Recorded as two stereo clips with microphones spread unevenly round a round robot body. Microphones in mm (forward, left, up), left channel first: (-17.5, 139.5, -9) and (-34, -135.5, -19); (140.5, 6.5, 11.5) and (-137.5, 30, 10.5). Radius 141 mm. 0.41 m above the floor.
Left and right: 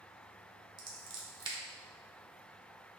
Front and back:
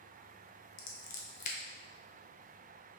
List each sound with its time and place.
0.8 s scissors: 40° right, 0.6 m